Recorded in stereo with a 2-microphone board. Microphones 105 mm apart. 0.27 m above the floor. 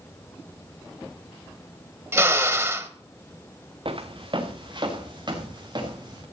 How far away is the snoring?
No snoring in this recording.